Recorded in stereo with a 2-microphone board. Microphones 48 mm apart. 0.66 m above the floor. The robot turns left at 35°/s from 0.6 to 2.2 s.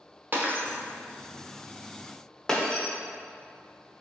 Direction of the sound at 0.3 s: 45° right (ahead or behind).